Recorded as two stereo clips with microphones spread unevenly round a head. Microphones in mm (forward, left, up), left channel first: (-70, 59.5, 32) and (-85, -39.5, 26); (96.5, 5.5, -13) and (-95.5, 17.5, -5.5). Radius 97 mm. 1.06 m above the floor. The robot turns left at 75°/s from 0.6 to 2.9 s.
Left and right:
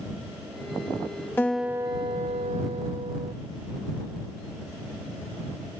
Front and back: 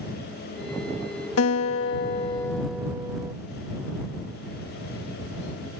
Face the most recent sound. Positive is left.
turn(degrees=-110)